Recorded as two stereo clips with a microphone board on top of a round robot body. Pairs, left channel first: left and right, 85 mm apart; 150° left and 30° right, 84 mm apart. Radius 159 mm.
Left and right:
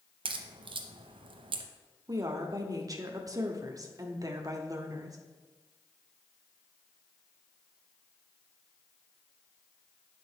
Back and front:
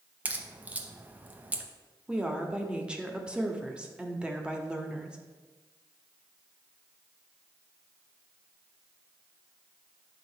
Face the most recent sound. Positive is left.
turn(degrees=-105)